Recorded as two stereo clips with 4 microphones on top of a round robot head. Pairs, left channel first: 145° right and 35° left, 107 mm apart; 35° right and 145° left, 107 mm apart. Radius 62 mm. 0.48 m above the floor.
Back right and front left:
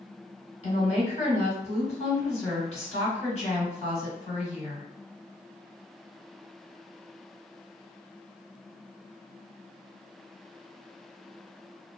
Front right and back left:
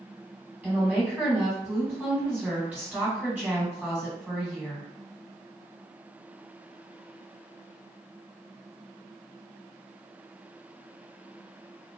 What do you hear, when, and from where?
0.6 s a woman speaking: 135° right, 1.8 m